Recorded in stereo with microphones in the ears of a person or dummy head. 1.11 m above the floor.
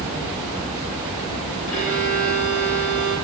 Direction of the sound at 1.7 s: 70° left (ahead or behind).